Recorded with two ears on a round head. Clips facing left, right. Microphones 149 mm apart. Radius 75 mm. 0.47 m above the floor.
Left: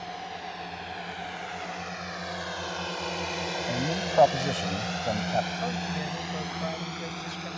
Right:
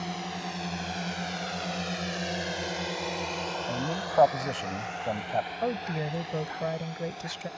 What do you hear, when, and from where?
0.0 s a drone: 65° right (ahead or behind); by 7.6 s 70° left (ahead or behind)
3.7 s a man speaking: 5° left (ahead or behind)
5.6 s a woman speaking: 40° right (ahead or behind)